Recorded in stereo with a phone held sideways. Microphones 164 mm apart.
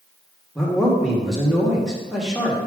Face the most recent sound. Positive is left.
turn(degrees=0)  # may be behind; listen again after turning